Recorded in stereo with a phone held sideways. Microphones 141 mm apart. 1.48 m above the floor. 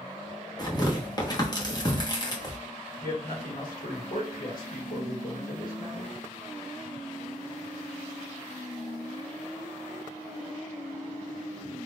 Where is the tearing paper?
30° left (ahead or behind), 1.3 m.